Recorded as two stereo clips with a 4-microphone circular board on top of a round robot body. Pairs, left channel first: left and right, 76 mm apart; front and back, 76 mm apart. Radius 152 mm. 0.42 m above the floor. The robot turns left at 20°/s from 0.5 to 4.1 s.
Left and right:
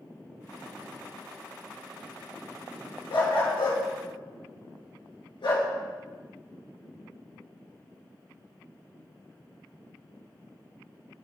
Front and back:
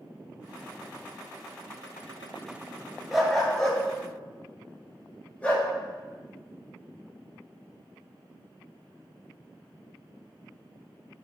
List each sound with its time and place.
3.1 s a dog barking: 90° left, 2.0 m; by 5.7 s 70° left, 2.0 m